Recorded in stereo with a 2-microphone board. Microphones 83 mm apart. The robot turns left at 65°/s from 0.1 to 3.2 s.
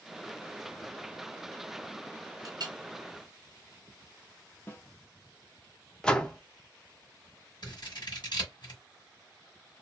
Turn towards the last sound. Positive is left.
turn(degrees=65)  # may be behind; listen again after turning